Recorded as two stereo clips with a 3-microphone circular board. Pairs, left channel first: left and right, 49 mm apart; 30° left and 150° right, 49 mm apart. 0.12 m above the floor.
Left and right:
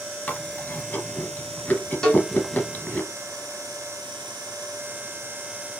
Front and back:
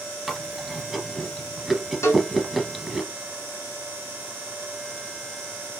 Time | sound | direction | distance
0.3 | chewing | 125° left | 1.5 m
2.0 | a cowbell | 20° left | 1.8 m